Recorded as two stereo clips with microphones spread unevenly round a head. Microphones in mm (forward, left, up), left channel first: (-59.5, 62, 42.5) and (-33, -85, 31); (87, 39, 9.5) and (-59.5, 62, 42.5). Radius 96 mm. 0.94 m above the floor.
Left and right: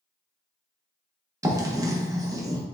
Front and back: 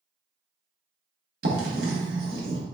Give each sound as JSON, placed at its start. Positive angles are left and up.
{"t": 1.4, "sound": "writing", "azimuth_deg": -145, "distance_m": 1.0}